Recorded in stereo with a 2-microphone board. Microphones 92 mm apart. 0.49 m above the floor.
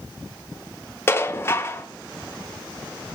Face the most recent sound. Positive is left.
turn(degrees=25)  # may be behind; listen again after turning